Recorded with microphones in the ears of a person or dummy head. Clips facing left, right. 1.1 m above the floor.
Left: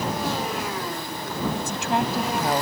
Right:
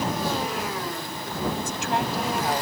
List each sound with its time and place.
1.6 s a woman speaking: 80° left; by 2.6 s 90° left